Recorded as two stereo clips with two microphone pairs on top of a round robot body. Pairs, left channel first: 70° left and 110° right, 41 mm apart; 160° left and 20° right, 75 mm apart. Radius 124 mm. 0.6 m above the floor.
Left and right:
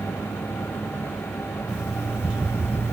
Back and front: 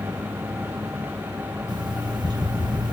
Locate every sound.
1.7 s an alarm clock: 40° right, 2.5 m